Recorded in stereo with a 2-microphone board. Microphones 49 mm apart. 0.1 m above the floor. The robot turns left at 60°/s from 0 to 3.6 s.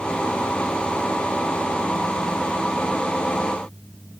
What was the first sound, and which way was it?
Only background noise.